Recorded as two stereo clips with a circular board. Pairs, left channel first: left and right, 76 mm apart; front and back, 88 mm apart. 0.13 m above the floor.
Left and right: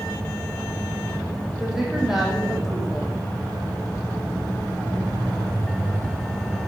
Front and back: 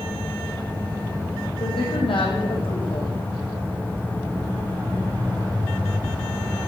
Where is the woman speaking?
5° right, 6.5 m.